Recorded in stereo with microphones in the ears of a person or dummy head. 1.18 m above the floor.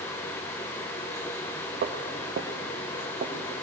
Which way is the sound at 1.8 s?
55° right (ahead or behind).